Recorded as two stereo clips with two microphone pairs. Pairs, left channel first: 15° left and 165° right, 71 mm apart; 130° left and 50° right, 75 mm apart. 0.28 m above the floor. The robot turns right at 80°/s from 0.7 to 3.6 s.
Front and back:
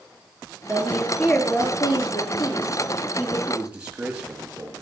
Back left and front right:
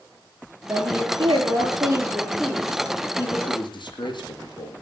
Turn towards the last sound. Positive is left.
turn(degrees=120)